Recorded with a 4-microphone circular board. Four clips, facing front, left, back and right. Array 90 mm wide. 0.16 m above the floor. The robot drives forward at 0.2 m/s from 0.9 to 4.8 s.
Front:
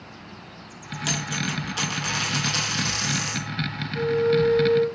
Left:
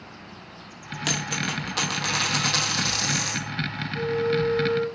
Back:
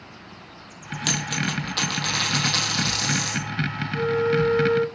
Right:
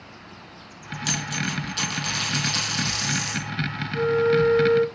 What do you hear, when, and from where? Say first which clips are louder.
1.1 s a dropped coin: even, back 2 dB; 110° left, 0.9 m; by 3.5 s 130° left, 1.2 m
3.9 s a flute: right 5 dB, front 1 dB; 115° right, 0.7 m; by 4.8 s 130° right, 0.8 m